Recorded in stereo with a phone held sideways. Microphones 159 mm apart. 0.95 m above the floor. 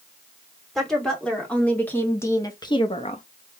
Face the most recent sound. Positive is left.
turn(degrees=50)  # may be behind; listen again after turning